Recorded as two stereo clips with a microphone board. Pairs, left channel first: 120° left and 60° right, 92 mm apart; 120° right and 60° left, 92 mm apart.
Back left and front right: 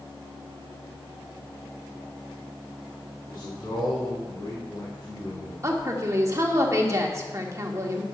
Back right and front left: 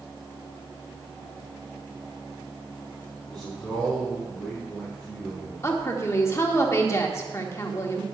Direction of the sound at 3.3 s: 155° left.